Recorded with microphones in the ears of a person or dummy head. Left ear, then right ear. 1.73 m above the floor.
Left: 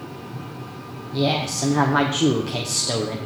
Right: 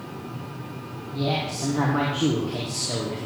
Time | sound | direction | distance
1.1 | a woman speaking | 80° left | 1.2 m